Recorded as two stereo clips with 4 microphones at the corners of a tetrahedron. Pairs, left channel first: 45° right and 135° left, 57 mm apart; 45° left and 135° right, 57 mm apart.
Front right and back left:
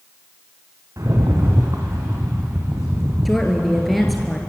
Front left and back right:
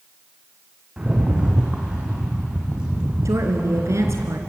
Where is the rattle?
150° left, 5 m.